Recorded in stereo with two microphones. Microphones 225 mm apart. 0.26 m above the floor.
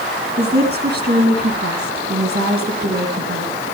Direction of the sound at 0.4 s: 45° right (ahead or behind).